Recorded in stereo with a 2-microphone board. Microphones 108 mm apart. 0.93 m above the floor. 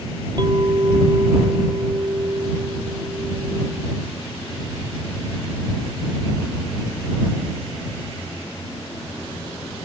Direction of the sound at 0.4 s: 40° right (ahead or behind).